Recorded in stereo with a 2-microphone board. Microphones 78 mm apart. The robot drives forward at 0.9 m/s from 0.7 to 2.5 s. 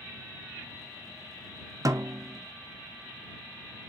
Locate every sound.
1.9 s a snare drum: 50° right (ahead or behind), 0.6 m; by 2.4 s 30° right (ahead or behind), 0.9 m